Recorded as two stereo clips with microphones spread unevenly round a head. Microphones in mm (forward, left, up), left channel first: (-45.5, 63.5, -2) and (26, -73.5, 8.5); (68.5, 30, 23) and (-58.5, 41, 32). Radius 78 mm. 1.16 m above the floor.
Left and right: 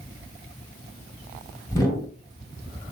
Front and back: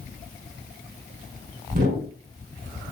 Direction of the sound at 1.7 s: 175° right.